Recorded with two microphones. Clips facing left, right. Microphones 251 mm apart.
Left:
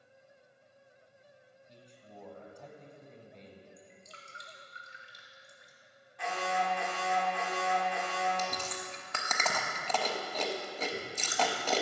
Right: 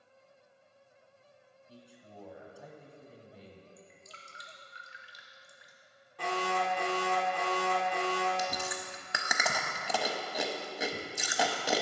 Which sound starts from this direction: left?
Dripping, at 3.8 s.